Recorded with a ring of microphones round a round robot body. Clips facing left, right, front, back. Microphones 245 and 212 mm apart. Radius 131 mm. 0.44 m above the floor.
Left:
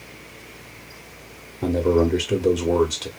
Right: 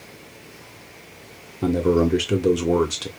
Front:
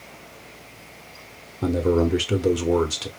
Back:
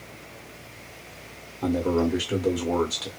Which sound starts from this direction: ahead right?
A man speaking, at 1.6 s.